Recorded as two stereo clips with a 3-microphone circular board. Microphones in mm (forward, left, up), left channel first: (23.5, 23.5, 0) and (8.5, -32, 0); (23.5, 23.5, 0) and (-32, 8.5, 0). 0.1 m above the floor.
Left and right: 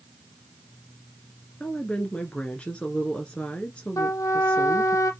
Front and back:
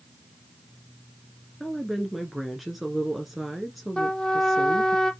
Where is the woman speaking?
110° left, 1.3 m.